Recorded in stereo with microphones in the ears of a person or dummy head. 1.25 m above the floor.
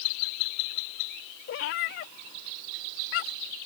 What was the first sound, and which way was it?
A cat meowing, 45° left (ahead or behind).